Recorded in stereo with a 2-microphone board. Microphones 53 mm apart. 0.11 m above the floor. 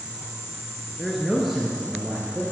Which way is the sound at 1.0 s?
Centre (ahead or behind).